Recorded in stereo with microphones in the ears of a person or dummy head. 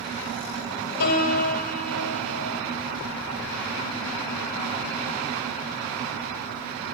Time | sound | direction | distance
1.0 | a piano | 85° left | 3 m